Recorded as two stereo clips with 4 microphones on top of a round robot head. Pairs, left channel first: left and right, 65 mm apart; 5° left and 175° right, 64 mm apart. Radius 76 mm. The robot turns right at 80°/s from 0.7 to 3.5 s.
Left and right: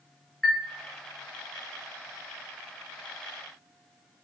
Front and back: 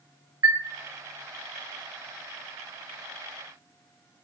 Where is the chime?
175° left, 1.0 m.